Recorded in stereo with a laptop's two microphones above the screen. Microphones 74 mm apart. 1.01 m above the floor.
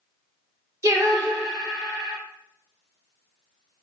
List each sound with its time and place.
0.8 s singing: 40° right (ahead or behind), 1.0 m